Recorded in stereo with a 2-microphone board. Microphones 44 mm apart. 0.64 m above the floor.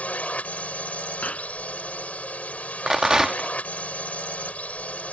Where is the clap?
30° left (ahead or behind).